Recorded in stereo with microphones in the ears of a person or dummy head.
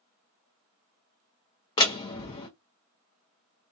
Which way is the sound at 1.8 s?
20° left (ahead or behind).